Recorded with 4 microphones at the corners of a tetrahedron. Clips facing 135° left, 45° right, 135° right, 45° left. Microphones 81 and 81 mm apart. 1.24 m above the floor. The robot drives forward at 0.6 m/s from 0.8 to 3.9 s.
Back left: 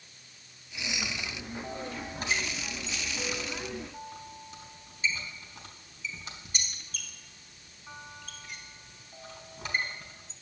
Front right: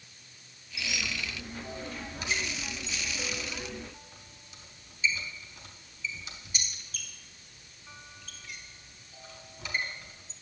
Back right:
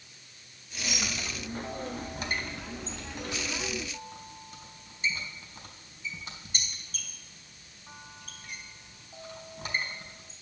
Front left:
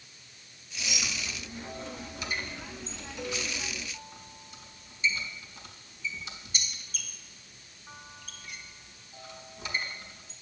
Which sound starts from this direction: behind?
A squeak, at 0.8 s.